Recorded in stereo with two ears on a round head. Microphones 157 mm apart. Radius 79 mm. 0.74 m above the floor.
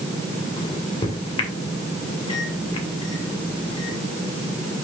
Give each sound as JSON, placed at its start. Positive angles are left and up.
{"t": 0.6, "sound": "a microwave", "side_deg": 30, "distance_m": 2.5}